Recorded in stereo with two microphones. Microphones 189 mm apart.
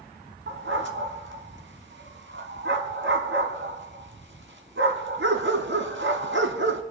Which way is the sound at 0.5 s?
80° right.